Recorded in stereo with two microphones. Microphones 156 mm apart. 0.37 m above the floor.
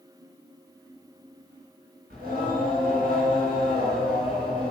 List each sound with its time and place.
2.1 s singing: 75° right (ahead or behind), 3.5 m